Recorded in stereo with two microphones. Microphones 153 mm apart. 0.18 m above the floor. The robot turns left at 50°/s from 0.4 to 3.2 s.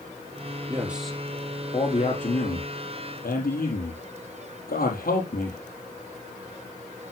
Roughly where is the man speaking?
Centre.